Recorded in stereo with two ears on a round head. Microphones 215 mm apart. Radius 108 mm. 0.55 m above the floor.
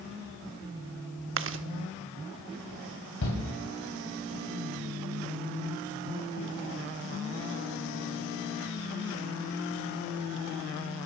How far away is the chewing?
About 0.8 m.